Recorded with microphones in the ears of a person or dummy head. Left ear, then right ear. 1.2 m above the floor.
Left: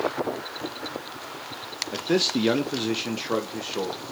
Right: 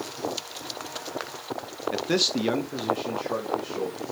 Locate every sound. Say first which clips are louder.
1.9 s a man speaking: left 1 dB; 25° right (ahead or behind), 0.6 m; by 4.0 s 55° left (ahead or behind), 1.2 m